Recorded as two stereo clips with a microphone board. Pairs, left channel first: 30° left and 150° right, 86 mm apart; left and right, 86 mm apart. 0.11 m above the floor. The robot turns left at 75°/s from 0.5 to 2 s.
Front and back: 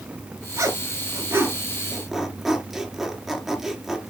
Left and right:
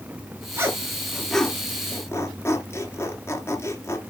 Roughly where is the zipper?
Behind right.